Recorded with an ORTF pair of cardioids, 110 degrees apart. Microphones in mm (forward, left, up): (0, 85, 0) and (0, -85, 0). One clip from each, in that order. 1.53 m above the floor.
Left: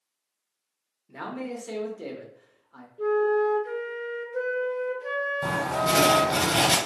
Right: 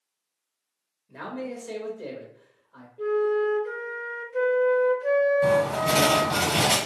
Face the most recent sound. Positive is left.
turn(degrees=15)